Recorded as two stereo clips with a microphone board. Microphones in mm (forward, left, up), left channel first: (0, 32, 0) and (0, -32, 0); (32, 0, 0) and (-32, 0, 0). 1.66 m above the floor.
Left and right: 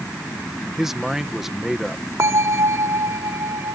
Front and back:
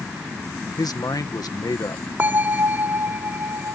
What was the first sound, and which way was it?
A man speaking, 5° right.